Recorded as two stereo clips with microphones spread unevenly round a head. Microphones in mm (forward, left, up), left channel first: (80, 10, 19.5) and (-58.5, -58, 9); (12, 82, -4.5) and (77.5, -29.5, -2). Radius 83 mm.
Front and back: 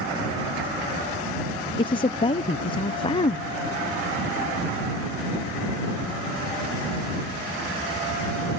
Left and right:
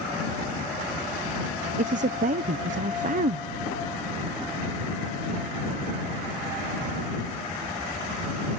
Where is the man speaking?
35° right.